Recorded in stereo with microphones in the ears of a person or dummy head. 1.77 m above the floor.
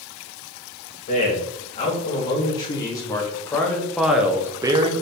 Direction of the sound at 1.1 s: 35° left (ahead or behind).